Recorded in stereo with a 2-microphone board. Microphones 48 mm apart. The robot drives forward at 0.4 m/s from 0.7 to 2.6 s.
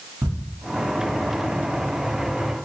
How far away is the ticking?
About 1.4 m.